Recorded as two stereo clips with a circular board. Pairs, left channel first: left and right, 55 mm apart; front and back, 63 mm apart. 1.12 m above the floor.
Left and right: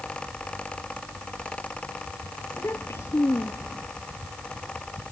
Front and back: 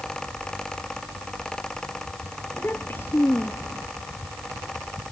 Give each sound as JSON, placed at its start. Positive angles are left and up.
{"t": 2.5, "sound": "a child speaking", "azimuth_deg": 50}